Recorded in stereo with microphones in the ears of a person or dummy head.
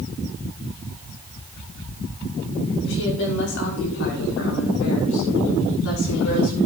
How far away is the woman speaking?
About 5.5 m.